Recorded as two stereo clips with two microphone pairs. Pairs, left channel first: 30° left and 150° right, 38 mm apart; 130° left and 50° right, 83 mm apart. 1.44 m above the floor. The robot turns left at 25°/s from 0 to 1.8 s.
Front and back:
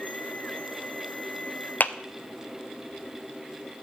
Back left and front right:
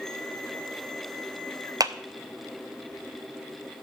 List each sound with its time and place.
1.8 s a clap: 5° right, 0.6 m